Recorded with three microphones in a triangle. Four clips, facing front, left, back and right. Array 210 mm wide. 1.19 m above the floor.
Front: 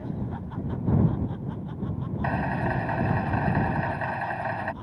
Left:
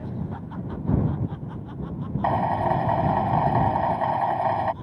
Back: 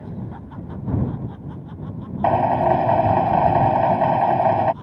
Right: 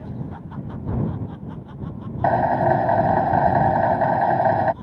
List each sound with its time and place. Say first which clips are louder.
2.2 s a drill: right 5 dB, back 12 dB; 140° right